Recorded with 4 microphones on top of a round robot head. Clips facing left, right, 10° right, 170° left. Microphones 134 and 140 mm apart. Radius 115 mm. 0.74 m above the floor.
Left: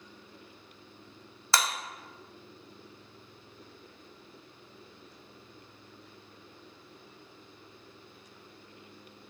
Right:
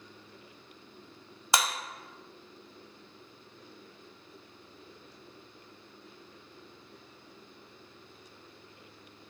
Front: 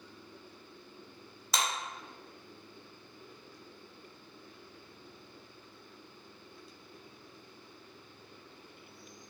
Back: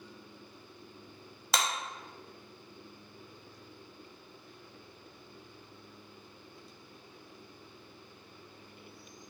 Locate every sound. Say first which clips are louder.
1.5 s a clap: right 1 dB, back 2 dB; 165° right, 0.7 m